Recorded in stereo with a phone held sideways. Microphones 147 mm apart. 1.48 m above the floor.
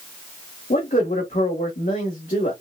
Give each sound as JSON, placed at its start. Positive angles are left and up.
{"t": 0.7, "sound": "a man speaking", "side_deg": 65, "distance_m": 1.7}